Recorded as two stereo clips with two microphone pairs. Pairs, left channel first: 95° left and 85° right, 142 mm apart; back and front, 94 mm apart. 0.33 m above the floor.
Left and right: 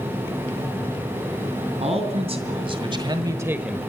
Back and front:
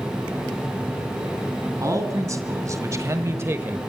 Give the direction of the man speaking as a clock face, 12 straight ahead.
2 o'clock.